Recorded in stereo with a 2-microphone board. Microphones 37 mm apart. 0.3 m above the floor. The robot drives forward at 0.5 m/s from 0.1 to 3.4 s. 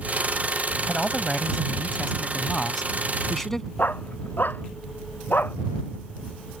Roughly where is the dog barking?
Left.